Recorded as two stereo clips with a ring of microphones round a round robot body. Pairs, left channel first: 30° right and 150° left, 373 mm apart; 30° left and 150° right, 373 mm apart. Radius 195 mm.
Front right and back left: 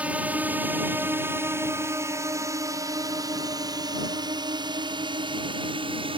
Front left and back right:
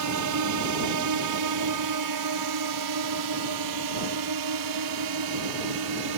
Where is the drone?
125° right; by 6.2 s 135° right.